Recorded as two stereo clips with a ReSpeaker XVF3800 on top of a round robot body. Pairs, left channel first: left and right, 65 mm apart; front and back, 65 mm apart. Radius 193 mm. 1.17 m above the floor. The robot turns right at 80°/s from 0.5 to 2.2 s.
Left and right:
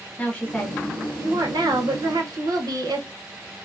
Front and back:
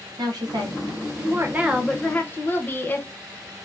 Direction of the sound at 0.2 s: 160° left.